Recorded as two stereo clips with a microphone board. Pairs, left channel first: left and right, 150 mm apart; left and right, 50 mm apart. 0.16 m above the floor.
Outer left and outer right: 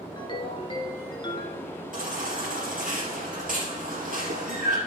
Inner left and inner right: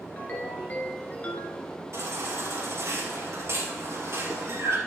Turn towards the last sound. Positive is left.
turn(degrees=-65)  # may be behind; listen again after turning